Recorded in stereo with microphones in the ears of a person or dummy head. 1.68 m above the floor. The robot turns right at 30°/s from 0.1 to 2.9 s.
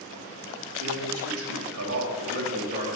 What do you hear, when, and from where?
0.8 s a man speaking: 100° right, 3 m; by 2.9 s 40° right, 3 m